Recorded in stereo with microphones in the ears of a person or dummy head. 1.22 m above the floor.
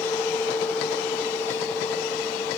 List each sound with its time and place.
0.0 s a fan: 15° left (ahead or behind)